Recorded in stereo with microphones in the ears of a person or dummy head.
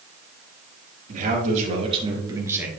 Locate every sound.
1.1 s a man speaking: 45° right (ahead or behind), 2.5 m; by 2.7 s 10° right (ahead or behind), 1.8 m